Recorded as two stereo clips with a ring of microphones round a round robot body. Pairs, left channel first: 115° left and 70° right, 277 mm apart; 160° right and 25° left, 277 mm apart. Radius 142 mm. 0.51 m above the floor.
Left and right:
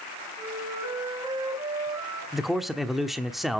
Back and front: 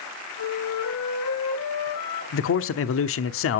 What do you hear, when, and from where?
0.4 s a flute: 145° right, 7 m
2.3 s a man speaking: 155° right, 0.9 m